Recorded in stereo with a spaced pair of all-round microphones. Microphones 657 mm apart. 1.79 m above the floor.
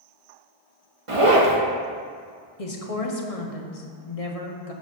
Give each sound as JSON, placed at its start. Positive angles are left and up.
{"t": 1.1, "sound": "a zipper", "side_deg": -50, "distance_m": 1.4}
{"t": 2.6, "sound": "a woman speaking", "side_deg": 60, "distance_m": 1.3}